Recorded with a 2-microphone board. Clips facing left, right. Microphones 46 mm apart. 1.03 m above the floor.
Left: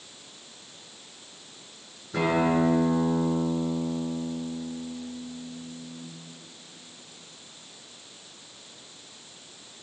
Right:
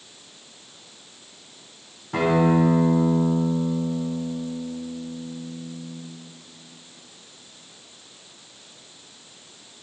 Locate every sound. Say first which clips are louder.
2.1 s a guitar: right 4 dB; 60° right (ahead or behind), 4.5 m